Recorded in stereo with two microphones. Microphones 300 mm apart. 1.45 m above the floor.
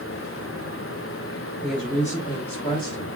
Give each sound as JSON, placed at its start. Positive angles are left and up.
{"t": 1.6, "sound": "a woman speaking", "side_deg": 0, "distance_m": 1.2}